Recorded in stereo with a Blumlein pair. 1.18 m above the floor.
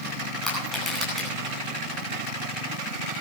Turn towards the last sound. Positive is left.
turn(degrees=0)